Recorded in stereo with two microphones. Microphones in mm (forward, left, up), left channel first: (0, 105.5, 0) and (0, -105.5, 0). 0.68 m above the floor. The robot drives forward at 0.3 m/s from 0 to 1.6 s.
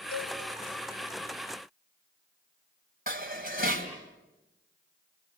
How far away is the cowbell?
About 3.5 m.